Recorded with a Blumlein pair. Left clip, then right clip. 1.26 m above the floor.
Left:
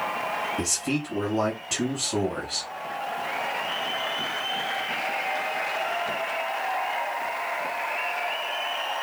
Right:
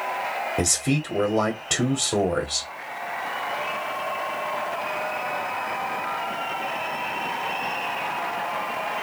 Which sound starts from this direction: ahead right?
A man speaking, at 0.6 s.